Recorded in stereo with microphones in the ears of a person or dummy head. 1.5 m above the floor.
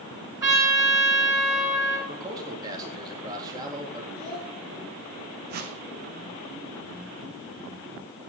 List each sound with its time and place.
0.4 s a trumpet: 10° right (ahead or behind), 3 m
2.1 s a man speaking: 25° right (ahead or behind), 3.5 m
4.2 s a child speaking: 65° right (ahead or behind), 3.5 m
5.5 s a whoosh: 35° right (ahead or behind), 1.0 m